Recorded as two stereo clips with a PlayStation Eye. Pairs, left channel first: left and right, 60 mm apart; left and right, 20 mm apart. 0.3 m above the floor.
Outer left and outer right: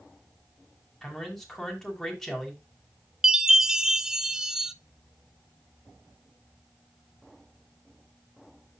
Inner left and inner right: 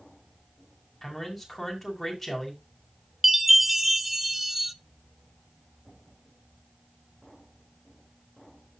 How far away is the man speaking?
About 2.5 m.